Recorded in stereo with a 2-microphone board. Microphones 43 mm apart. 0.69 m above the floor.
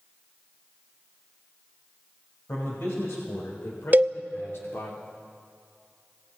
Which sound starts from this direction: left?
A man speaking, at 2.5 s.